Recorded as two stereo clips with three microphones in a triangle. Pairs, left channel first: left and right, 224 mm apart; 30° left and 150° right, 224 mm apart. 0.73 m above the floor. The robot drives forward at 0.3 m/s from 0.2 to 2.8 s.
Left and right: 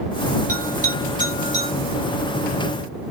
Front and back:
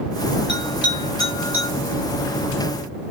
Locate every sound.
0.5 s a bell: 135° right, 1.4 m; by 1.7 s 145° right, 1.7 m